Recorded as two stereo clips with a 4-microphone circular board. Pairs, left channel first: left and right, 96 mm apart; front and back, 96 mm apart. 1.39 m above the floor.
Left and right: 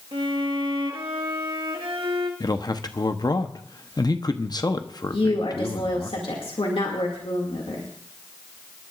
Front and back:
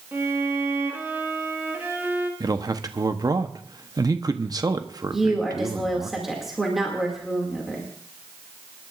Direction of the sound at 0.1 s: 110° right.